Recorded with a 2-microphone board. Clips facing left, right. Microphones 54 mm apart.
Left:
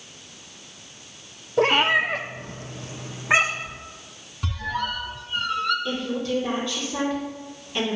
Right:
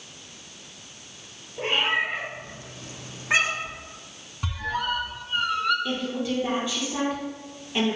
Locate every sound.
1.6 s a cat meowing: 80° left, 0.8 m; by 3.8 s 20° left (ahead or behind), 1.4 m
4.4 s a squeak: 10° right (ahead or behind), 1.2 m
5.8 s a woman speaking: 15° right (ahead or behind), 3.5 m